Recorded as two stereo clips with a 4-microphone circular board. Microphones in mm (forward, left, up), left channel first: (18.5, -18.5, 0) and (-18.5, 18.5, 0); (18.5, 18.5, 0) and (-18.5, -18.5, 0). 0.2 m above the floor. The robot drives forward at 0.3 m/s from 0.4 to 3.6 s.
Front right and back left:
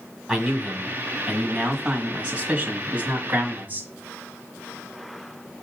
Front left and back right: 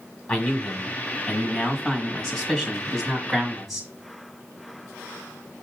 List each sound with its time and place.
0.3 s a man speaking: 60° left, 1.5 m; by 3.9 s 135° left, 1.6 m